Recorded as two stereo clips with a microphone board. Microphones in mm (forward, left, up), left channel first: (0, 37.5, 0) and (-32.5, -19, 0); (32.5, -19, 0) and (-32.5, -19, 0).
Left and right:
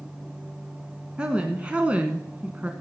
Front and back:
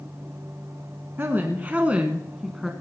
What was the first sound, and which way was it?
A woman speaking, straight behind.